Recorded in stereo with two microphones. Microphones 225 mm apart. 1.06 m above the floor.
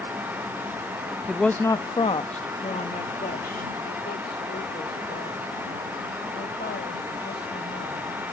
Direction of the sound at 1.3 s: 5° right (ahead or behind).